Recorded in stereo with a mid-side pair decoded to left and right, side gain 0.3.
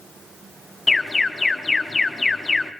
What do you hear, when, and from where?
0.9 s an alarm: 40° left, 1.6 m